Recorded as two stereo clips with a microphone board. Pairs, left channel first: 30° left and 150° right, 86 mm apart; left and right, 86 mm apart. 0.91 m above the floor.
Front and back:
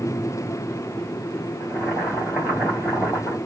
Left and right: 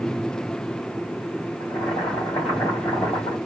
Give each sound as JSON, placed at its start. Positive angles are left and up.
{"t": 1.6, "sound": "boiling", "azimuth_deg": 125, "distance_m": 2.5}